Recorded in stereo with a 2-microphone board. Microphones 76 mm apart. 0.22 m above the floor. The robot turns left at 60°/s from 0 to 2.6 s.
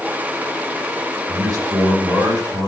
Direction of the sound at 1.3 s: 40° right.